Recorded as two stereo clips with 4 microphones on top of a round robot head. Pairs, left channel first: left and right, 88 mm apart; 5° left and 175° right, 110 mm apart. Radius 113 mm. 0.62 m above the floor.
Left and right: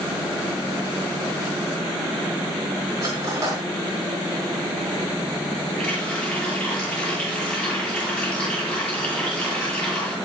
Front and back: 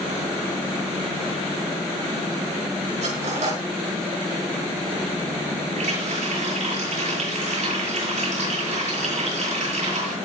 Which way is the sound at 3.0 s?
150° right.